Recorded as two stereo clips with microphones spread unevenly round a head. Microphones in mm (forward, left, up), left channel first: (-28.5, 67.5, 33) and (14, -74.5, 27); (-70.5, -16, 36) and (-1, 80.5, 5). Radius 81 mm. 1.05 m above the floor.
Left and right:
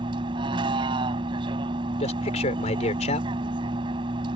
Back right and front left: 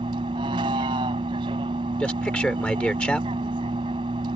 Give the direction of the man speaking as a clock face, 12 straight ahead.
7 o'clock.